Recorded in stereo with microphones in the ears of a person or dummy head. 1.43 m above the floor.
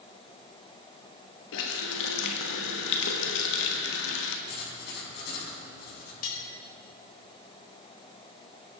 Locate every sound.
1.5 s a running tap: 65° left (ahead or behind), 1.3 m
4.5 s writing: 60° left (ahead or behind), 6 m
6.2 s cutlery clinking: 45° left (ahead or behind), 4.5 m